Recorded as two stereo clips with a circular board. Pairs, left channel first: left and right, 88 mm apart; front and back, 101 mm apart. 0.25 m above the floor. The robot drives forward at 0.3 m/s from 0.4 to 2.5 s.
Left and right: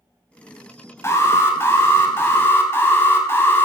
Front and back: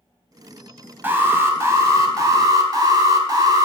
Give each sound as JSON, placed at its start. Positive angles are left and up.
{"t": 1.0, "sound": "an alarm", "azimuth_deg": 120, "distance_m": 1.1}